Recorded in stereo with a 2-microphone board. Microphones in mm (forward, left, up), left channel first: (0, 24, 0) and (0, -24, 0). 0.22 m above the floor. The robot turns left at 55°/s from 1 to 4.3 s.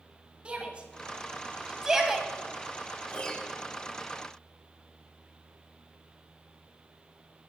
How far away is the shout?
About 1.4 m.